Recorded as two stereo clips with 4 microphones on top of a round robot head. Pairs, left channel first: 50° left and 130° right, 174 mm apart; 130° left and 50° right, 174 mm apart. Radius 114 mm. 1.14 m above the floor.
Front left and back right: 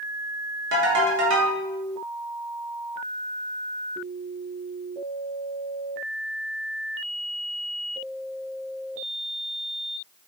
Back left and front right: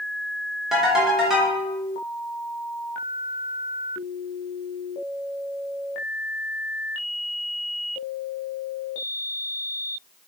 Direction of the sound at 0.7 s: 135° right.